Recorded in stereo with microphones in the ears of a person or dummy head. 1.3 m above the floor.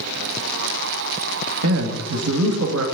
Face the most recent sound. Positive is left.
turn(degrees=-70)  # may be behind; listen again after turning